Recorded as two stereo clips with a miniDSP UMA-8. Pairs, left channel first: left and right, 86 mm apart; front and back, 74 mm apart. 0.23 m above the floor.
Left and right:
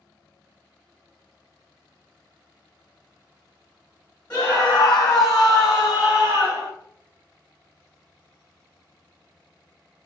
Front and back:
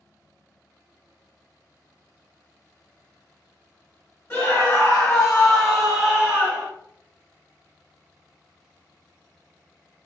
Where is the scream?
40° left, 1.6 m; by 6.7 s 125° right, 1.6 m.